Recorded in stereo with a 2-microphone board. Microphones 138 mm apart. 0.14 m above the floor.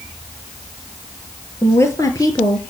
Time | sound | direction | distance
1.6 | a woman speaking | 20° left (ahead or behind) | 2.5 m